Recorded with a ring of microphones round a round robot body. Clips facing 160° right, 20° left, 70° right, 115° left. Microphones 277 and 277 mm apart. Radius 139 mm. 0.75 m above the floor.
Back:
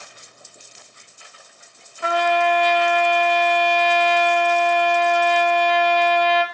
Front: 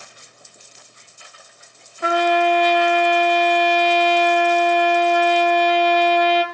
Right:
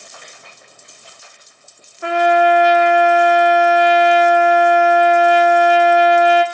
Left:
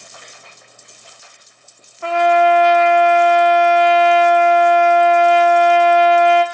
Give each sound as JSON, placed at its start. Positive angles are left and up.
{"t": 2.0, "sound": "a trumpet", "azimuth_deg": 5, "distance_m": 1.5}